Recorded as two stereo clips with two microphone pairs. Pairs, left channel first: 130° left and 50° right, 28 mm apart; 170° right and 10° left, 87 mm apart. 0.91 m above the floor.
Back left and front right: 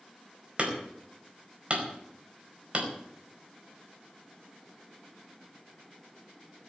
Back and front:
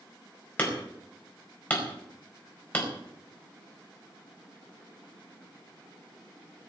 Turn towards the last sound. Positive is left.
turn(degrees=-100)